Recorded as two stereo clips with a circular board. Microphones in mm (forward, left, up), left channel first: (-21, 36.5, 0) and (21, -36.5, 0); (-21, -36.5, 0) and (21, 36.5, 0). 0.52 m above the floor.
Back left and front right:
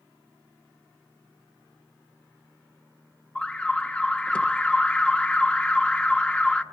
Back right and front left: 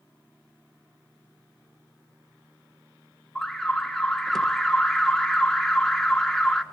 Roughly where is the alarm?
Behind.